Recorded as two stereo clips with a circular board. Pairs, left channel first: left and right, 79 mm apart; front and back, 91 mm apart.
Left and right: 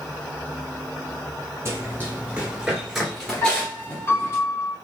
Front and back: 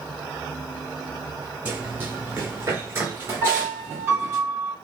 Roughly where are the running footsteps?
Behind right.